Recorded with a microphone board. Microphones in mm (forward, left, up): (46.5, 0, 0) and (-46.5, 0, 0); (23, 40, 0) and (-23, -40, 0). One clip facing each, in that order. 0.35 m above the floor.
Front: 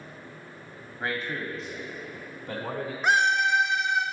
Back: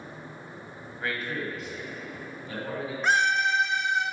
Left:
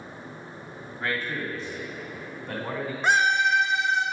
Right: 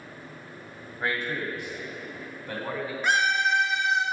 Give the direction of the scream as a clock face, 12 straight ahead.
10 o'clock.